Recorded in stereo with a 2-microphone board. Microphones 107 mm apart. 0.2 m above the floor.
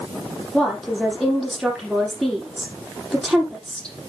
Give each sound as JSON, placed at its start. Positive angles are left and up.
{"t": 0.5, "sound": "a woman speaking", "side_deg": 5, "distance_m": 7.0}